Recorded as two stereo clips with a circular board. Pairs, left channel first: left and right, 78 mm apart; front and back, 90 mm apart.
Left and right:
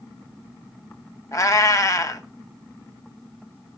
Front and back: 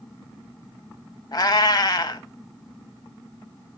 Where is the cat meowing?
45° left, 0.6 m.